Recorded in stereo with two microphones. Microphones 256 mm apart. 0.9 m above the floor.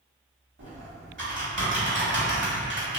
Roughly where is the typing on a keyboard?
Right.